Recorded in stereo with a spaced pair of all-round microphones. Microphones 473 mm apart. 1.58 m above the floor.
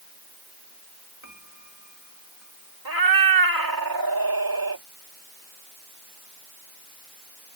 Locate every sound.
1.2 s a piano: 40° right (ahead or behind)
2.9 s a cat meowing: 45° right (ahead or behind)